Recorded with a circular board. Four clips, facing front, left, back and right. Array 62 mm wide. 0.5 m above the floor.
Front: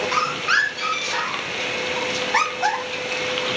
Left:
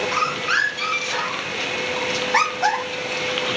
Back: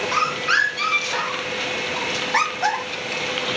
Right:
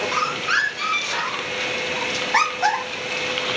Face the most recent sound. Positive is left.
turn(degrees=-165)